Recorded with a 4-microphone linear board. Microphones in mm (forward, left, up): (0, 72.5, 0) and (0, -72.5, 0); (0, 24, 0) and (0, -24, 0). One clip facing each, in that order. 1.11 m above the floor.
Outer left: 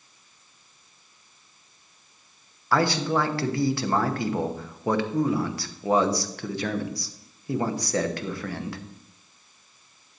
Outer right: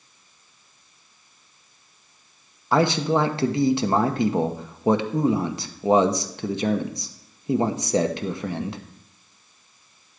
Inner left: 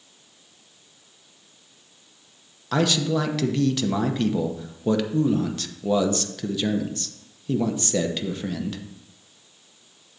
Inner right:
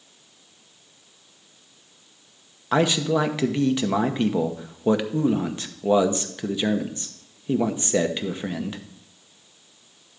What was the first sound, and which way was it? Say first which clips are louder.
A man speaking: outer right 3 dB, inner right 2 dB; 20° right (ahead or behind).